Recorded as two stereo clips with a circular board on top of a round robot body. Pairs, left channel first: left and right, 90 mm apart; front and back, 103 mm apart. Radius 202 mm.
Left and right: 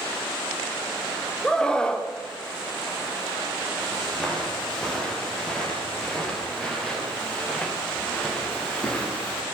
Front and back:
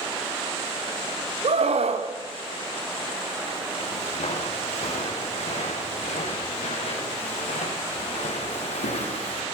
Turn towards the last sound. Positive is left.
turn(degrees=10)